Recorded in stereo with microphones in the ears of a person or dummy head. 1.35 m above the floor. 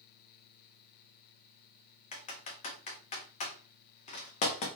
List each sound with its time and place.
2.1 s typing on a keyboard: 40° left (ahead or behind), 0.7 m